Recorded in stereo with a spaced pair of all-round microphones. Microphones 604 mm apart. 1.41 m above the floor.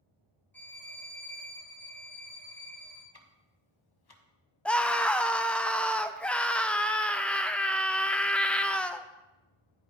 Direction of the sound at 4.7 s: Centre (ahead or behind).